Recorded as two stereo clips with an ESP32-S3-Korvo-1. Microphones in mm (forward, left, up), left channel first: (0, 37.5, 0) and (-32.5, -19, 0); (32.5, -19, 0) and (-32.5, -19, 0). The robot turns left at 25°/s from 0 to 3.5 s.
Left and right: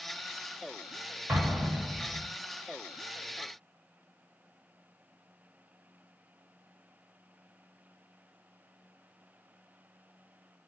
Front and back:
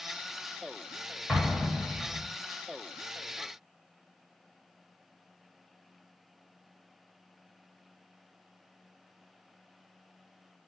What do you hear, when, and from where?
1.3 s an explosion: 95° right, 1.0 m; by 2.2 s 120° right, 1.0 m